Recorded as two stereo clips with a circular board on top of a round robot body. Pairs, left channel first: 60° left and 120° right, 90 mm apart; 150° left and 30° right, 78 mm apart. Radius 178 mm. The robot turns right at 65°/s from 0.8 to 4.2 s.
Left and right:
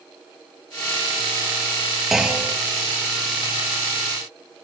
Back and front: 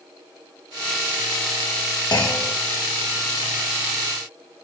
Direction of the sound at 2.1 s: 150° left.